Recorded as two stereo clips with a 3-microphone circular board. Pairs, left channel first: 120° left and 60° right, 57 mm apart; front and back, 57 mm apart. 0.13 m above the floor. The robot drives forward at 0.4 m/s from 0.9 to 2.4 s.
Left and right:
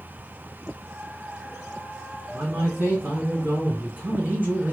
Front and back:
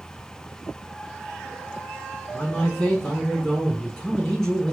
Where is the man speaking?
75° right, 2.0 m; by 4.7 s 80° right, 2.0 m.